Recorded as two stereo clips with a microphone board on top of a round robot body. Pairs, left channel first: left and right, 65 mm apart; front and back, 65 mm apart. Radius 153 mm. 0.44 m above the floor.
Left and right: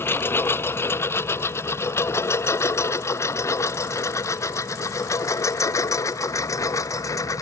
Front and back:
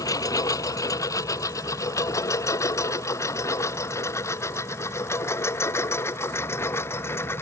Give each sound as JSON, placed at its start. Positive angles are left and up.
{"t": 0.0, "sound": "a lawn mower", "azimuth_deg": 35}